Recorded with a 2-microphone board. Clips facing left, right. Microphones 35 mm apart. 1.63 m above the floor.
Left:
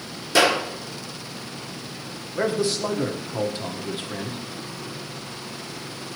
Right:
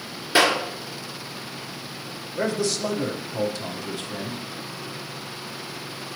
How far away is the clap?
About 4.5 m.